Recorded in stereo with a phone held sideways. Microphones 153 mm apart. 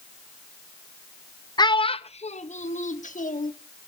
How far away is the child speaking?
About 0.5 m.